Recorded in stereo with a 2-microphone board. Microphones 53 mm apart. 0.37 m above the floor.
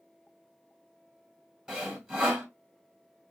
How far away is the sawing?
About 1.6 m.